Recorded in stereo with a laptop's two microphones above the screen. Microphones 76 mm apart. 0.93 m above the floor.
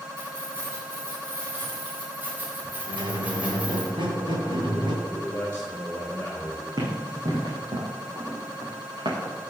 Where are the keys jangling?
35° right (ahead or behind), 4.5 m; by 3.9 s 15° right (ahead or behind), 3 m.